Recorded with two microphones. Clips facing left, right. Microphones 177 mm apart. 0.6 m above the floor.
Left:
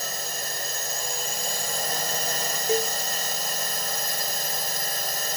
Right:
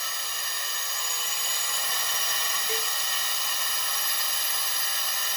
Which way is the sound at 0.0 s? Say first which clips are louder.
Left 7 dB; 45° left (ahead or behind).